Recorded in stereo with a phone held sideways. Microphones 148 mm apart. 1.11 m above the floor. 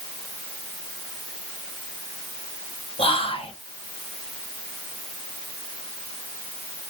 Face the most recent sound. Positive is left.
turn(degrees=40)  # may be behind; listen again after turning